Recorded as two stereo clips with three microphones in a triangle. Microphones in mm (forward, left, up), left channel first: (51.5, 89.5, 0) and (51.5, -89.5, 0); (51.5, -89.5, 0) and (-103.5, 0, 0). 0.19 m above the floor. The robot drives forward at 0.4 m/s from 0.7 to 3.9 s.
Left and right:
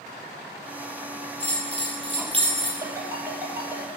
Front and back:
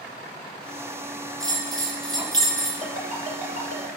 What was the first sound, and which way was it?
A bell, 140° right.